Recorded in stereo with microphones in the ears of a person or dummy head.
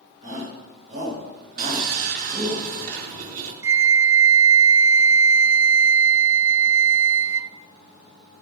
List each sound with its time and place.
0.2 s a shout: 50° right (ahead or behind), 8.5 m
1.6 s sawing: 45° right (ahead or behind), 3.5 m
3.6 s a flute: 10° right (ahead or behind), 0.8 m